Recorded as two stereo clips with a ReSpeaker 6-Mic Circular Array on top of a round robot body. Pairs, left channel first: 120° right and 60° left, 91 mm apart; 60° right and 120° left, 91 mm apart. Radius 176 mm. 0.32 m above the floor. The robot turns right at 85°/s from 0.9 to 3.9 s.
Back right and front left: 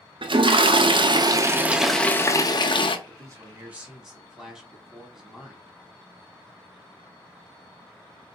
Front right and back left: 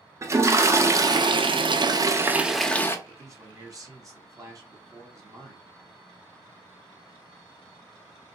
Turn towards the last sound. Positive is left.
turn(degrees=140)